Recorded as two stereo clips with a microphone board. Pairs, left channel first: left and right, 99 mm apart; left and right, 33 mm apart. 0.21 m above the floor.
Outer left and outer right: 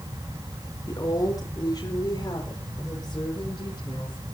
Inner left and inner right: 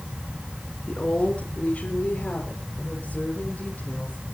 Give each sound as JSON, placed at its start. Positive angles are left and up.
{"t": 0.9, "sound": "a woman speaking", "side_deg": 35, "distance_m": 3.0}